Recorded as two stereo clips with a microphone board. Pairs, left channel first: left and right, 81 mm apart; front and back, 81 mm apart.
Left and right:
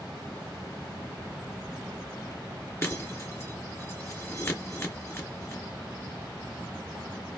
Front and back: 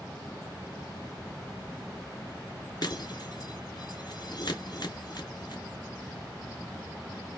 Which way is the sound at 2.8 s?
30° left.